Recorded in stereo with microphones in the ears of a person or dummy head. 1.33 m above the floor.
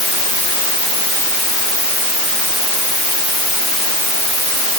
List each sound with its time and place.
Only background noise.